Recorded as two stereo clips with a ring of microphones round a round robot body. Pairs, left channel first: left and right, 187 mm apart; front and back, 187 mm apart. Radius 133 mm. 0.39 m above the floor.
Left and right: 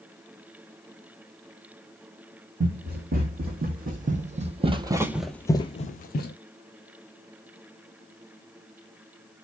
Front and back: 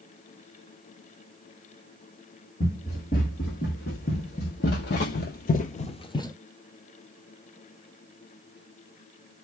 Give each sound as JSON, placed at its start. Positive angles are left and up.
{"t": 2.6, "sound": "running footsteps", "azimuth_deg": -55, "distance_m": 1.6}